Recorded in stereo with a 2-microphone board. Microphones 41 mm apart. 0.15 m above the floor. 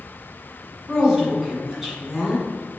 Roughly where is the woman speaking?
Centre.